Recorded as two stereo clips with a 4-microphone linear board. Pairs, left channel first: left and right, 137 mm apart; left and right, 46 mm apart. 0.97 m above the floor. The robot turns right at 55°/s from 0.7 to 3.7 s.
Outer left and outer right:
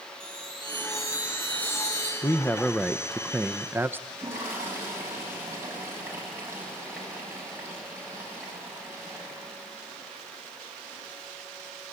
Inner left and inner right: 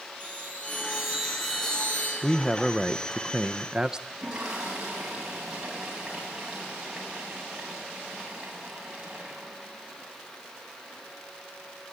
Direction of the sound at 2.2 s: 15° left (ahead or behind).